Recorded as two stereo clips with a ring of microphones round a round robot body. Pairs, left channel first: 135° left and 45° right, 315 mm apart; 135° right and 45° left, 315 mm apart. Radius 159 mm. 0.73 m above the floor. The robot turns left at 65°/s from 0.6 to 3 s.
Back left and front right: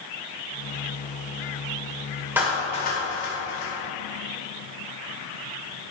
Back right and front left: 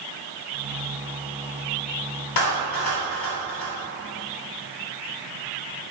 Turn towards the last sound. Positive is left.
turn(degrees=-170)